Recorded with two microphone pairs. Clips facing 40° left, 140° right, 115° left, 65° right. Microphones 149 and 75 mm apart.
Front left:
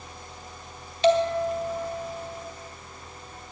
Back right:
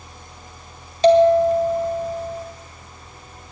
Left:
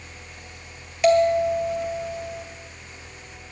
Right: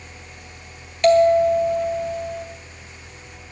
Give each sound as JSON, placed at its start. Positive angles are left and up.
{"t": 1.0, "sound": "a bell", "azimuth_deg": -165, "distance_m": 1.7}